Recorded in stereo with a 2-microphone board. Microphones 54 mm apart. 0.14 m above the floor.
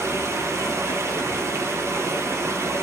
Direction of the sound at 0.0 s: 65° right (ahead or behind).